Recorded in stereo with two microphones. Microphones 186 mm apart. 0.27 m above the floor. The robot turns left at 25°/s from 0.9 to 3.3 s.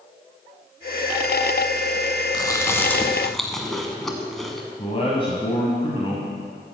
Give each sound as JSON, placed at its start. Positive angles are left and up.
{"t": 2.3, "sound": "chewing", "side_deg": 25, "distance_m": 1.1}
{"t": 4.8, "sound": "a man speaking", "side_deg": 30, "distance_m": 1.4}